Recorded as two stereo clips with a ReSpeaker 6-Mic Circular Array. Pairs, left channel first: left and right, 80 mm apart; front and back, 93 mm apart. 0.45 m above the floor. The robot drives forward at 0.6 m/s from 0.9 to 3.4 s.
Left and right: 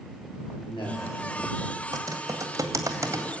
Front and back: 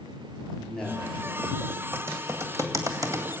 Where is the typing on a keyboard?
120° right, 2 m; by 3.2 s 135° right, 2.5 m.